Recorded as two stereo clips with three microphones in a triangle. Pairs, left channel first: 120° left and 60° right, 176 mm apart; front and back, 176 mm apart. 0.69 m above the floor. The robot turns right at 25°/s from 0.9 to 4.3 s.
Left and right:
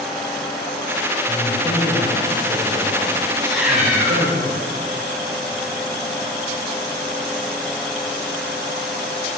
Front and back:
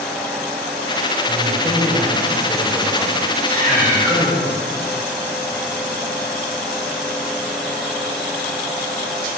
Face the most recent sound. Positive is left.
turn(degrees=-125)